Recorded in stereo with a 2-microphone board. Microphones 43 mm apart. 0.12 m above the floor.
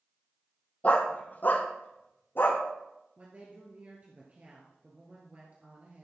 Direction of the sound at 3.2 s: 40° right (ahead or behind).